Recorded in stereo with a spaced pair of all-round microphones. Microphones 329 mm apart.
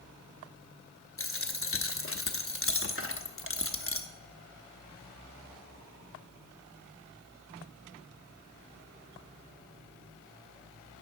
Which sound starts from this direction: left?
A dropped coin, at 1.2 s.